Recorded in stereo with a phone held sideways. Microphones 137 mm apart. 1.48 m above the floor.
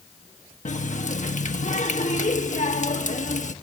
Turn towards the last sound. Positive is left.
turn(degrees=60)  # may be behind; listen again after turning